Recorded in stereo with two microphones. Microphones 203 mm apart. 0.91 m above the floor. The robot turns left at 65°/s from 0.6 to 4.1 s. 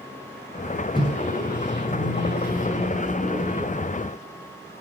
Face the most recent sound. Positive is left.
turn(degrees=-50)